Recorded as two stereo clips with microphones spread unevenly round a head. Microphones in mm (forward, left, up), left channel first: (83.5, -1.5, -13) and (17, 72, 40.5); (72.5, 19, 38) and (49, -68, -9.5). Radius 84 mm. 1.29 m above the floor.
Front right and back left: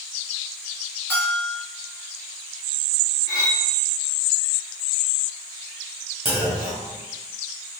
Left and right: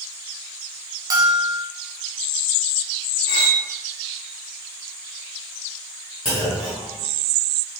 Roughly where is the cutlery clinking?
Right.